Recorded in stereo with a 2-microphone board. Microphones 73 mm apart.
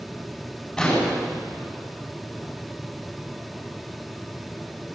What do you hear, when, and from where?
0.8 s an explosion: 10° left (ahead or behind), 9.5 m